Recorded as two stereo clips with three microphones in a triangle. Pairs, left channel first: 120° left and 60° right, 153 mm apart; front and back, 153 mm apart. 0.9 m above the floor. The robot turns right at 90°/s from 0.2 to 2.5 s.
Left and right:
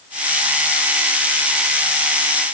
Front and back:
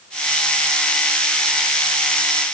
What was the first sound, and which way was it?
Only background noise.